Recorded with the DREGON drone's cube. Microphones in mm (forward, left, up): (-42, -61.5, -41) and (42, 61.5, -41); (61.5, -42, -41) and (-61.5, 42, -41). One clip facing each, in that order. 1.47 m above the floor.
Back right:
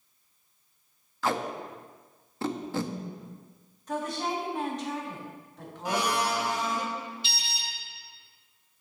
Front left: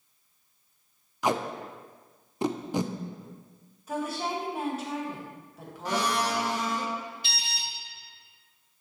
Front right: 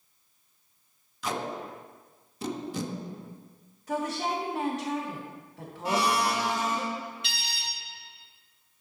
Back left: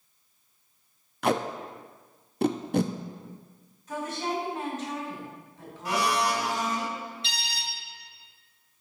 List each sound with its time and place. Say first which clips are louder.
1.2 s tape being pulled: front left 2 dB, back left 6 dB; 130° left, 0.5 m
3.9 s a woman speaking: even, front right 2 dB; 25° right, 2 m
5.8 s a blender: even, even; 60° right, 1.4 m
7.2 s an alarm: even, back left 2 dB; 90° left, 3 m